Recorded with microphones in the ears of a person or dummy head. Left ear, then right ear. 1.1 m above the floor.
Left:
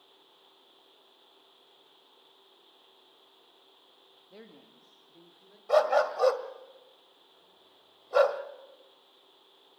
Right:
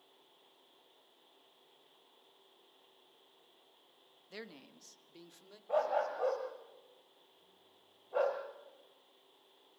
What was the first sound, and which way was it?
A man speaking, 60° right (ahead or behind).